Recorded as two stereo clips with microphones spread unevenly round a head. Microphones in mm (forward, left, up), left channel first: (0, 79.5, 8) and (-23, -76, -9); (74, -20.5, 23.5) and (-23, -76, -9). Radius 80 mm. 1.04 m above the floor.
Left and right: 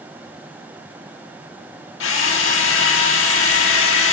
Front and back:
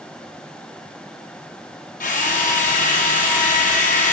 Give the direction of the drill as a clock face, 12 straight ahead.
9 o'clock.